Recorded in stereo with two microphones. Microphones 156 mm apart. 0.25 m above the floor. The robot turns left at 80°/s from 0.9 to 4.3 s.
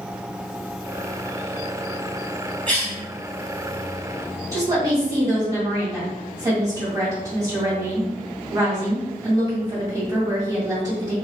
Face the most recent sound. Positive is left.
turn(degrees=-25)  # may be behind; listen again after turning